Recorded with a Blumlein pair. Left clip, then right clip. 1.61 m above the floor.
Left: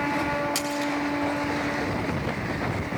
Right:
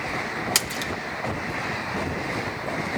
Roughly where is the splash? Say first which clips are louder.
Right 2 dB; ahead right.